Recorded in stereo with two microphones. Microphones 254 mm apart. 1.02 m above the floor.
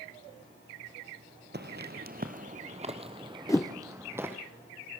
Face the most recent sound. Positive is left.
turn(degrees=10)  # may be behind; listen again after turning